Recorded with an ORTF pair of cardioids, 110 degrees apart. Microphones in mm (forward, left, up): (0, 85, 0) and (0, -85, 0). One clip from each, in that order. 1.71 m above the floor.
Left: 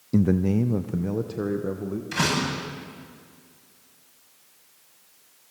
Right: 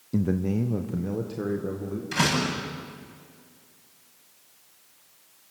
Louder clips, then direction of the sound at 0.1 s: Left 4 dB; 20° left.